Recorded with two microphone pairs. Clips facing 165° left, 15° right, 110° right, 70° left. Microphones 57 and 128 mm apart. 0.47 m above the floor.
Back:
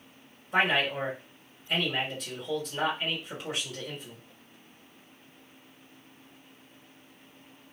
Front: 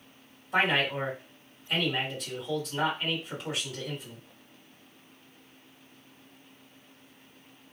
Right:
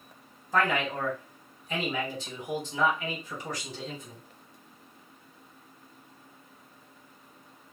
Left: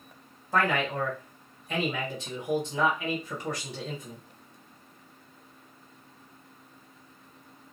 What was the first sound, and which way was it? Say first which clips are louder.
A man speaking: even, left 1 dB; 85° left.